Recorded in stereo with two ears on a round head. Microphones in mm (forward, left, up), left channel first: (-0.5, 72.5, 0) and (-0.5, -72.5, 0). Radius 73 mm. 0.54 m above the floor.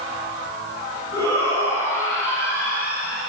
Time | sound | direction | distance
1.1 | a shout | 20° right (ahead or behind) | 6.5 m